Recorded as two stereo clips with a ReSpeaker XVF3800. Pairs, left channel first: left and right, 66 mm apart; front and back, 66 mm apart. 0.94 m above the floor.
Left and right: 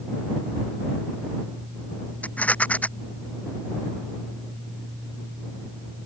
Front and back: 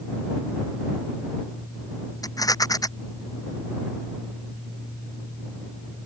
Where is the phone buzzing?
I don't hear a phone buzzing.